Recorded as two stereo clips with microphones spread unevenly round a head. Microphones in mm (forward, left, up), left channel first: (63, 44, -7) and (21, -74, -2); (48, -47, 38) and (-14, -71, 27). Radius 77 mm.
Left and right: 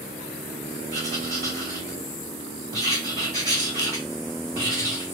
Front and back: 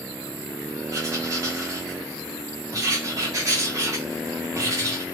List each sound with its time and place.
0.9 s writing: 160° right, 1.4 m